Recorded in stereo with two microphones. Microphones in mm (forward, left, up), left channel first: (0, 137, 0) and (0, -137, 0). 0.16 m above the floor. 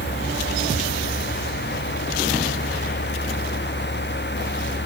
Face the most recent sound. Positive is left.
No sound to turn to.